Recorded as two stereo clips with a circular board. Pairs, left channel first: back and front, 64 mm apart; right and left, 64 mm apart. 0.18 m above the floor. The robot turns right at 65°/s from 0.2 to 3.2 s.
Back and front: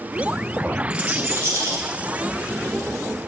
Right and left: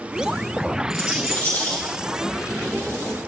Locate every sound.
0.9 s a rattle: 70° right, 4.5 m; by 1.9 s 10° right, 4.5 m